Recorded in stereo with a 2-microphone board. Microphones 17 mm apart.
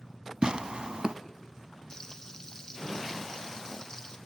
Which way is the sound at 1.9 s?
30° left (ahead or behind).